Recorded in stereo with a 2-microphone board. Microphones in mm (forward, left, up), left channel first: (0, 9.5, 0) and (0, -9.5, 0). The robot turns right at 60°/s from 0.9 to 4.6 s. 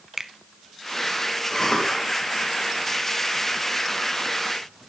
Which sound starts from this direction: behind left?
A cough, at 1.5 s.